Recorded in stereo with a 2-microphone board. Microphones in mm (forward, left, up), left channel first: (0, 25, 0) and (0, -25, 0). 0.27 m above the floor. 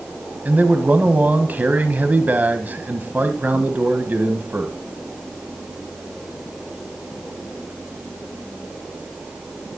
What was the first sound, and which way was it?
A man speaking, 35° right (ahead or behind).